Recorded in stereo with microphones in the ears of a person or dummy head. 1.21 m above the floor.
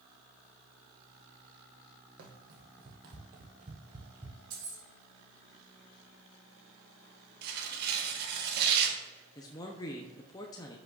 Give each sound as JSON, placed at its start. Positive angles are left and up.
{"t": 2.2, "sound": "running footsteps", "side_deg": -55, "distance_m": 2.5}
{"t": 4.5, "sound": "keys jangling", "side_deg": -50, "distance_m": 2.5}
{"t": 7.4, "sound": "tearing paper", "side_deg": -55, "distance_m": 1.5}
{"t": 9.3, "sound": "a man speaking", "side_deg": 20, "distance_m": 0.7}